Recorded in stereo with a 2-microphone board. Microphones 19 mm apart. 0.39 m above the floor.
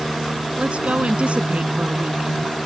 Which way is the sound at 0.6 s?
70° right (ahead or behind).